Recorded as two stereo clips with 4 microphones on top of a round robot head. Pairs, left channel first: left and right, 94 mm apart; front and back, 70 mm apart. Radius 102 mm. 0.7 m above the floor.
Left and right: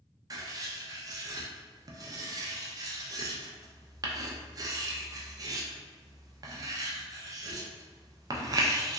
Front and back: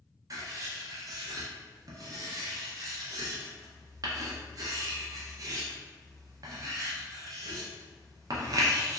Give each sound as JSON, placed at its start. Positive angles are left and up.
{"t": 0.3, "sound": "writing", "azimuth_deg": -140, "distance_m": 0.5}